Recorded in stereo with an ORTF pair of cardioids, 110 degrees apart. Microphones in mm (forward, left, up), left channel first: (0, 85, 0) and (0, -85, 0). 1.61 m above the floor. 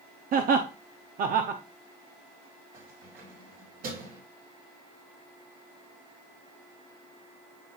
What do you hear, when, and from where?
0.3 s laughter: 55° right, 0.8 m
2.7 s keys jangling: 65° right, 4.5 m